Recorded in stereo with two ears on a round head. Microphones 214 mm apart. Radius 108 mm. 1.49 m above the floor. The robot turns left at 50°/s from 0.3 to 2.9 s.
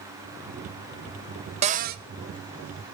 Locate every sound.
1.6 s a cupboard door: 25° right (ahead or behind), 0.5 m; by 2.0 s 45° right (ahead or behind), 0.5 m